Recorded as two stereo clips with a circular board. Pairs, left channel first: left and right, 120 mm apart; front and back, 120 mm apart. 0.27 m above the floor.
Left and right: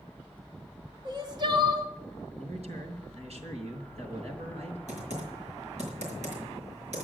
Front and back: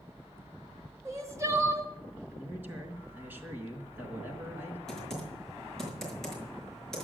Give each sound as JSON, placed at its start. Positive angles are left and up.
{"t": 1.1, "sound": "crying", "azimuth_deg": -125, "distance_m": 1.8}
{"t": 2.4, "sound": "a man speaking", "azimuth_deg": -105, "distance_m": 4.0}
{"t": 4.9, "sound": "typing on a keyboard", "azimuth_deg": -85, "distance_m": 5.5}